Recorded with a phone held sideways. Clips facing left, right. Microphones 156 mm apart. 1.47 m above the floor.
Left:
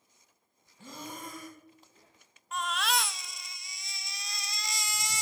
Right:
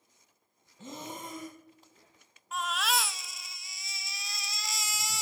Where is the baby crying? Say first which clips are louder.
Even; centre (ahead or behind), 0.6 m.